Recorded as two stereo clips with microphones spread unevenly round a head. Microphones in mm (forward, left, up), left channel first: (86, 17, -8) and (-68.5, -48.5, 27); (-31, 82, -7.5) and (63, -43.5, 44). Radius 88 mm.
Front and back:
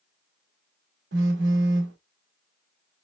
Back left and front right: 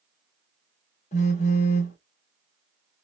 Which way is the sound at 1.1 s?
175° right.